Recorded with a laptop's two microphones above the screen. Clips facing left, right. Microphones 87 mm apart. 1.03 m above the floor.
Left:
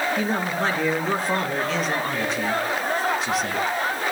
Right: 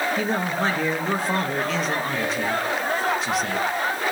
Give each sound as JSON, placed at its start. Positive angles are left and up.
{"t": 0.2, "sound": "a man speaking", "side_deg": 0, "distance_m": 1.2}